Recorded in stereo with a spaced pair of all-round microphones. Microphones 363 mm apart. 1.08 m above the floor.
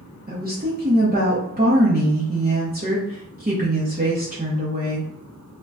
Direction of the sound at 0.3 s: 25° right (ahead or behind).